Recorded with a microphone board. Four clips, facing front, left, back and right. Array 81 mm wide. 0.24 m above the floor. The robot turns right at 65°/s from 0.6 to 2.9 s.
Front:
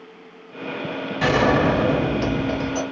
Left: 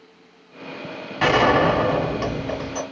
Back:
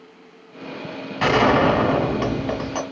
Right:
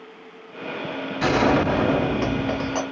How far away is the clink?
I don't hear a clink.